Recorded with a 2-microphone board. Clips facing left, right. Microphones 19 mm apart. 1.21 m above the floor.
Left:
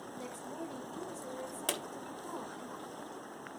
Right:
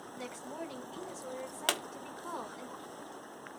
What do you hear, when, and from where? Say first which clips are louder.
0.2 s a woman speaking: right 2 dB; 40° right (ahead or behind), 1.5 m
1.7 s a pop: right 5 dB; 45° right (ahead or behind), 1.3 m